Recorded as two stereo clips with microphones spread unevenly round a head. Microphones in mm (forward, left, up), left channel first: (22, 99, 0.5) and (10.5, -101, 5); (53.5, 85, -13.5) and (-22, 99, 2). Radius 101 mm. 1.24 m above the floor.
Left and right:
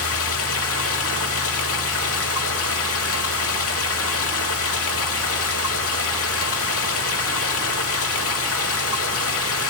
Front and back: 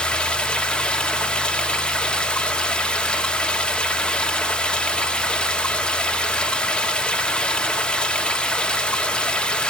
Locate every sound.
0.0 s running water: 70° left, 2.0 m